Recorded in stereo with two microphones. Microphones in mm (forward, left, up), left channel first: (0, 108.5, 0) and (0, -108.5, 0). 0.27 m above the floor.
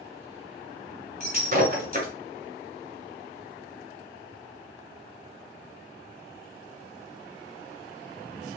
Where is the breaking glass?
45° right (ahead or behind), 1.9 m.